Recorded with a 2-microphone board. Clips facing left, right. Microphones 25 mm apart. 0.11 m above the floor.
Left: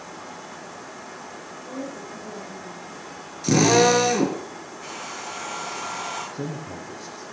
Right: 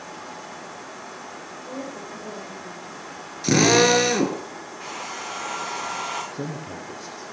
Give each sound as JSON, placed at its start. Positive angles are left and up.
{"t": 1.7, "sound": "a woman speaking", "side_deg": -45, "distance_m": 7.0}
{"t": 3.4, "sound": "a drill", "side_deg": -25, "distance_m": 1.8}
{"t": 4.8, "sound": "a hair dryer", "side_deg": -50, "distance_m": 8.5}
{"t": 6.3, "sound": "a man speaking", "side_deg": -35, "distance_m": 3.0}